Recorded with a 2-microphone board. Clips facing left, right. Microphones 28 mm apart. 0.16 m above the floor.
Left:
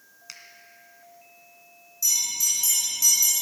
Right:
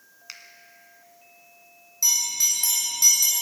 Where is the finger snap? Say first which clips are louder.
Right 2 dB; 15° right (ahead or behind), 1.6 m.